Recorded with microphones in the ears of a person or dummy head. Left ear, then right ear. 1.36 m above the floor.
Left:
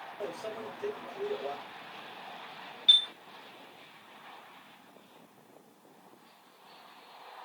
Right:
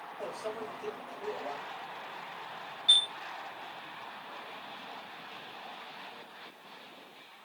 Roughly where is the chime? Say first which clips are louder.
Left 2 dB; centre.